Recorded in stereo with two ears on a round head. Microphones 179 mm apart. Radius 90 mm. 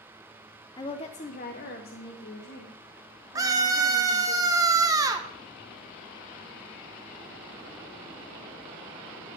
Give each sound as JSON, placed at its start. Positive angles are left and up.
{"t": 0.8, "sound": "a woman speaking", "side_deg": 20, "distance_m": 0.5}
{"t": 3.4, "sound": "a scream", "side_deg": -20, "distance_m": 1.1}